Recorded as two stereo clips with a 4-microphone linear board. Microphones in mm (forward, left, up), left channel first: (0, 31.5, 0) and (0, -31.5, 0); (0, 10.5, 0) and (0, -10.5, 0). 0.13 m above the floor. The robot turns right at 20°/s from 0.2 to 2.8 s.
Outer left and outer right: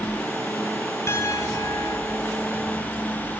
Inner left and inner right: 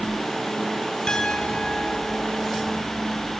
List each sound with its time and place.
1.1 s a piano: 40° left (ahead or behind), 4 m; by 2.2 s 60° left (ahead or behind), 4 m